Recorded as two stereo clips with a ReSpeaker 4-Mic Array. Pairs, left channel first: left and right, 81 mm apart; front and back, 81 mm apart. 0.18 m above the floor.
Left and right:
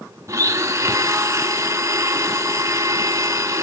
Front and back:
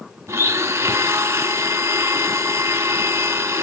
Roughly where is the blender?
Behind right.